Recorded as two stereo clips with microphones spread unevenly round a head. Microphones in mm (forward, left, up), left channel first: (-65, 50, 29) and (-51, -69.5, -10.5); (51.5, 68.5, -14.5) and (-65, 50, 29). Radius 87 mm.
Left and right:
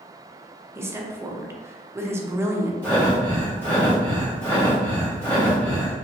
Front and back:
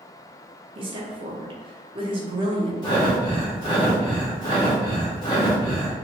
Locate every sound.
0.8 s a woman speaking: 160° right, 0.7 m
2.8 s breathing: 70° left, 1.5 m